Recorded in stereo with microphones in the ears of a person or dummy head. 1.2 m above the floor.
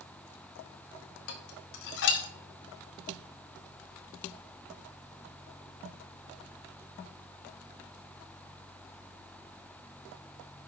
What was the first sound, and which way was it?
Dishes clattering, 70° left (ahead or behind).